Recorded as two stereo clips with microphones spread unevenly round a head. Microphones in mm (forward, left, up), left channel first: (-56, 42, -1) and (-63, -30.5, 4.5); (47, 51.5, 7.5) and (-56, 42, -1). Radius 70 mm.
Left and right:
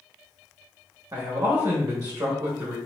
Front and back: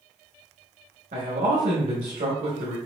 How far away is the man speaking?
About 1.0 m.